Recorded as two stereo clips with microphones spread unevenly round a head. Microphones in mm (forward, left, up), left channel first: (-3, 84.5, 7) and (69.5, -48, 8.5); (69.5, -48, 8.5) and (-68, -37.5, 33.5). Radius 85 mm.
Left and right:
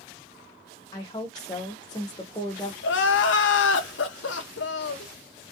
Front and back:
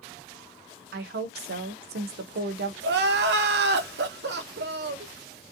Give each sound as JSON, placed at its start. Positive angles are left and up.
{"t": 0.9, "sound": "a woman speaking", "azimuth_deg": -170, "distance_m": 0.7}
{"t": 2.8, "sound": "crying", "azimuth_deg": 145, "distance_m": 0.6}